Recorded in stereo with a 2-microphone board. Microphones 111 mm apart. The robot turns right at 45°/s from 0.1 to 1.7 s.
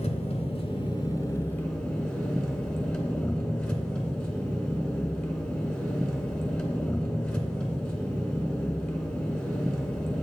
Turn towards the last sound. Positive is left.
turn(degrees=170)